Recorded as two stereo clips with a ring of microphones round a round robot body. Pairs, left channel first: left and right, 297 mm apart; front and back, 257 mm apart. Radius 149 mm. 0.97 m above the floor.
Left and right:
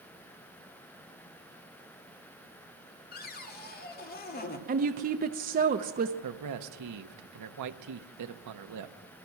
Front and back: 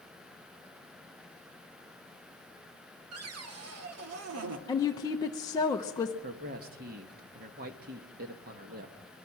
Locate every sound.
3.1 s a cupboard door: 150° left, 1.7 m
4.7 s a woman speaking: 65° right, 0.7 m
6.2 s a man speaking: 120° right, 1.1 m